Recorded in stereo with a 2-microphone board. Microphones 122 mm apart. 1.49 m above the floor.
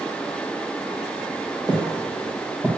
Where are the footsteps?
15° right (ahead or behind), 2.5 m; by 2.7 s 20° right (ahead or behind), 2 m.